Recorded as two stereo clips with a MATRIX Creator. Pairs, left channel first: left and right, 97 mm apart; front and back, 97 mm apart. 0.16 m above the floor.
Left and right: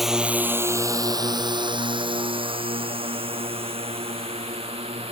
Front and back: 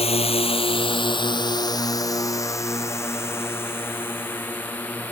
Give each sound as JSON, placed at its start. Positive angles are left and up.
{"t": 0.0, "sound": "a drone", "azimuth_deg": 0}